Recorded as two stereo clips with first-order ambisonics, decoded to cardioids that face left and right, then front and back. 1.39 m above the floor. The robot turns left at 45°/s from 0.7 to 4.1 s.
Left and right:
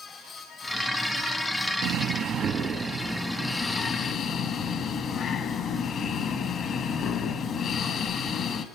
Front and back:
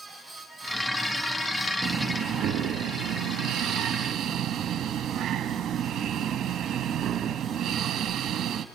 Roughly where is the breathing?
Behind right.